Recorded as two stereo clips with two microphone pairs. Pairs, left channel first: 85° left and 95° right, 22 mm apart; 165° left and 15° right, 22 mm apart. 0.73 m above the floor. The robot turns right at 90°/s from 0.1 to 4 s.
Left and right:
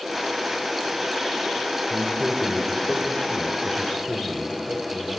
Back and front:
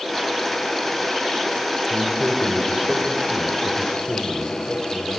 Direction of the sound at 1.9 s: 55° right.